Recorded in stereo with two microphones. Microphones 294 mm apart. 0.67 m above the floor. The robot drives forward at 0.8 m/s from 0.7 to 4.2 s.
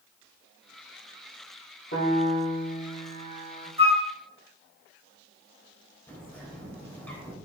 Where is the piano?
35° left (ahead or behind), 6.5 m; by 3.7 s 45° left (ahead or behind), 5.5 m.